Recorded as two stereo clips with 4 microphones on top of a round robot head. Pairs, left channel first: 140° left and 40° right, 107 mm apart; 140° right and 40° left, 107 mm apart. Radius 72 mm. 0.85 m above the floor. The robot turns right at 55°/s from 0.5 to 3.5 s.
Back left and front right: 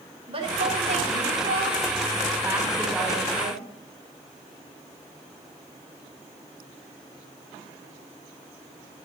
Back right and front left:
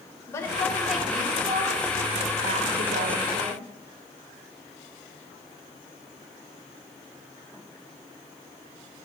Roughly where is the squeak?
I don't hear a squeak.